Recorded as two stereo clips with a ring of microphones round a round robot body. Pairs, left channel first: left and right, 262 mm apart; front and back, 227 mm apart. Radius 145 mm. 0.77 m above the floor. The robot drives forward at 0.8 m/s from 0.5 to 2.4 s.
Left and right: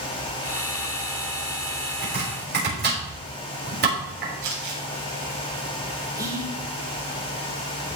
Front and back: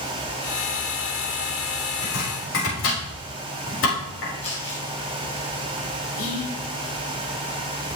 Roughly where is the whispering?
Ahead.